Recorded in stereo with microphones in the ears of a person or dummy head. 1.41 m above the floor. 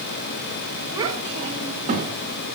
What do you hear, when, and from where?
0.9 s a child speaking: 20° right (ahead or behind), 1.6 m; by 2.1 s 40° right (ahead or behind), 1.9 m